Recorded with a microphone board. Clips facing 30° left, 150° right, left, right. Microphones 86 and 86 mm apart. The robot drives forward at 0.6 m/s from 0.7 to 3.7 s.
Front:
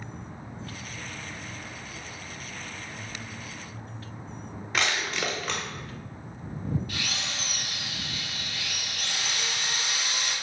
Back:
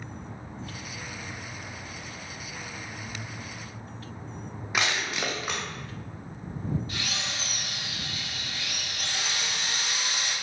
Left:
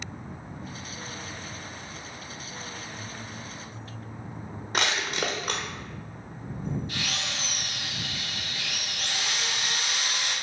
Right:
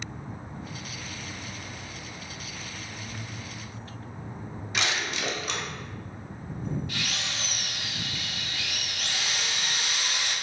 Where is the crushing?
130° left, 1.4 m.